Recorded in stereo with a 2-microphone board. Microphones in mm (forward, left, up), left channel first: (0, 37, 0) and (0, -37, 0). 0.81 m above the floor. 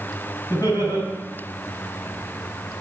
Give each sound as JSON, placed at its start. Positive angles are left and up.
{"t": 0.5, "sound": "laughter", "side_deg": 60, "distance_m": 3.5}